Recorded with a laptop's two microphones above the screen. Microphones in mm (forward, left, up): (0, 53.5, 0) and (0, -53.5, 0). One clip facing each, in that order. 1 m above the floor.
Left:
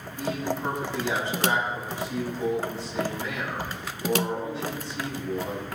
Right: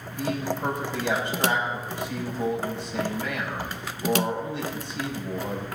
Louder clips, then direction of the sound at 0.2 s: Right 1 dB; 65° right (ahead or behind).